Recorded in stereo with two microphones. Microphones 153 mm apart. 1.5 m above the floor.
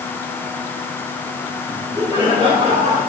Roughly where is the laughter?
Right.